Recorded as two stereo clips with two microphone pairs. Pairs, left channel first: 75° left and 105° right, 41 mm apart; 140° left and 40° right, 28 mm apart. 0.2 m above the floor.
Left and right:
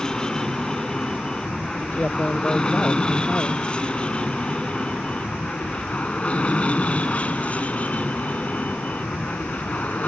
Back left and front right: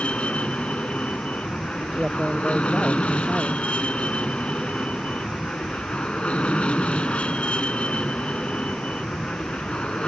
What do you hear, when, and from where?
0.0 s an aircraft: 145° left; by 10.1 s 110° left
1.9 s a woman speaking: 25° left